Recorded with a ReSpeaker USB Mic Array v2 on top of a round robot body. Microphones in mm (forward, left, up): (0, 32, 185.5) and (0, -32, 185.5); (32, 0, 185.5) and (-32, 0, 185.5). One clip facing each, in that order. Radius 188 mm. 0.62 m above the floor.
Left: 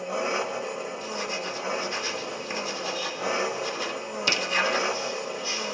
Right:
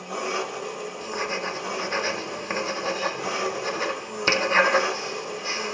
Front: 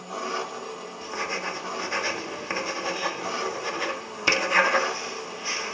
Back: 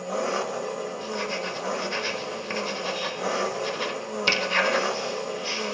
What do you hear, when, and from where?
0.0 s an engine running: 155° left, 1.3 m
1.0 s writing: 65° right, 0.9 m